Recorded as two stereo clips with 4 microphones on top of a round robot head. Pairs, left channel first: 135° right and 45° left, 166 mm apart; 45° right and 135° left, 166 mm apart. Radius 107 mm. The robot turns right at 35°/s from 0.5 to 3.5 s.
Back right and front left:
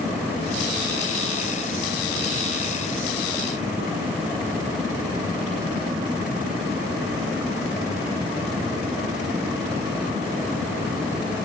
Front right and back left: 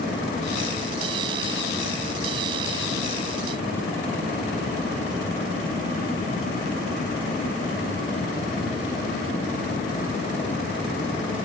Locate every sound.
Only background noise.